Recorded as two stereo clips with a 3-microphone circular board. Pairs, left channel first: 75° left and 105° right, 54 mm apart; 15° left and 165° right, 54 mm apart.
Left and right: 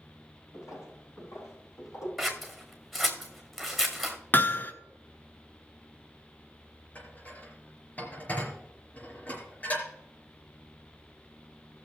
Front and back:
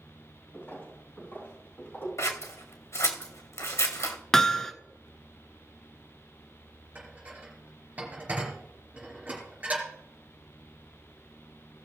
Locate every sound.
0.5 s footsteps: 65° left, 5.5 m
2.2 s scissors: 10° right, 1.8 m
4.3 s hammering: 90° left, 1.0 m
7.0 s dishes clattering: 135° left, 4 m